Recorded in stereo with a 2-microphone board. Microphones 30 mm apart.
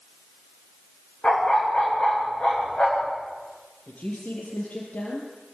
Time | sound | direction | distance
1.2 | a dog barking | 35° left (ahead or behind) | 10 m
3.9 | a woman speaking | 60° left (ahead or behind) | 6 m